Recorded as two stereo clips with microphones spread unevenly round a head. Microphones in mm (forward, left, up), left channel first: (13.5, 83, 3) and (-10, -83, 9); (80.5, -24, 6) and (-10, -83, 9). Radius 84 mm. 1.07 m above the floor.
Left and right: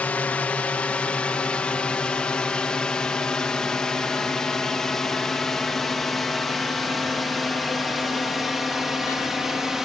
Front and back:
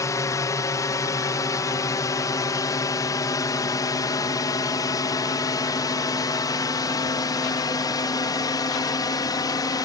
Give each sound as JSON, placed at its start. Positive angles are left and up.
{"t": 0.0, "sound": "a drone", "azimuth_deg": 5}